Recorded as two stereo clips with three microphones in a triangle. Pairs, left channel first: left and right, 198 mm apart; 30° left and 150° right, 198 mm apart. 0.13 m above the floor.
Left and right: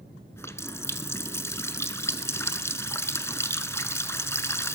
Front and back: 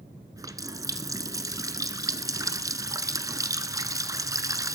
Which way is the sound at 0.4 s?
155° left.